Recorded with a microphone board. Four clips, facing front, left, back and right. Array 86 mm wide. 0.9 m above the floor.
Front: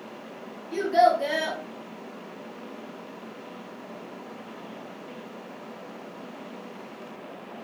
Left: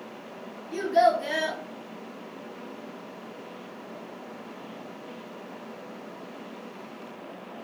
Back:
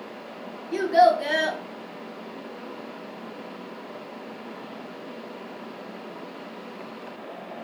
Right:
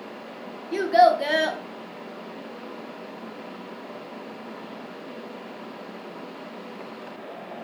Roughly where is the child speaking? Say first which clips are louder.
Right 4 dB, back 2 dB; right.